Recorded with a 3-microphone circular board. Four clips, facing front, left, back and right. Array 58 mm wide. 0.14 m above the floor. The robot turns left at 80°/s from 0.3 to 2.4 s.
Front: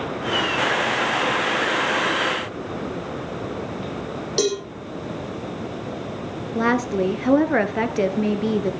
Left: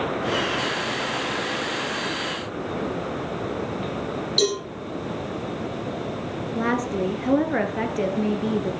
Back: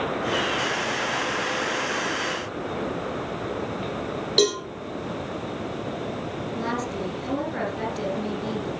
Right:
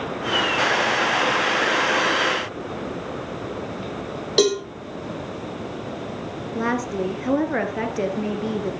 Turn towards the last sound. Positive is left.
turn(degrees=-5)